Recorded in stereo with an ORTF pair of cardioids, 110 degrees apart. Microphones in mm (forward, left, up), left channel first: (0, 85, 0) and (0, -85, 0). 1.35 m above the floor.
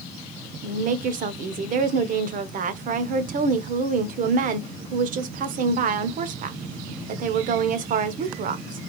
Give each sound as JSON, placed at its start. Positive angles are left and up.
{"t": 0.6, "sound": "a woman speaking", "azimuth_deg": -55, "distance_m": 0.8}